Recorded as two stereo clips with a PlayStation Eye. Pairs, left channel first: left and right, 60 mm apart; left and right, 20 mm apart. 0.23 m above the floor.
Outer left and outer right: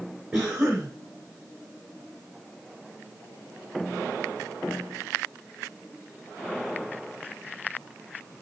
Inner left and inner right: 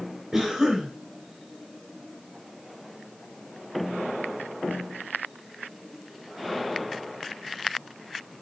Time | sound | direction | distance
0.3 | a cough | 40° right (ahead or behind) | 3.5 m